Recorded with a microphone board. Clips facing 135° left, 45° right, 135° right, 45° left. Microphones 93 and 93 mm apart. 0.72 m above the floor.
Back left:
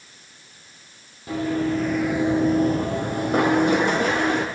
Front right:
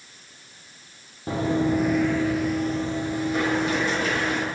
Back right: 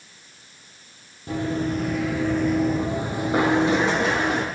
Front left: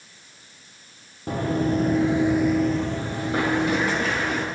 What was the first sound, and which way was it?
Running footsteps, 10° left.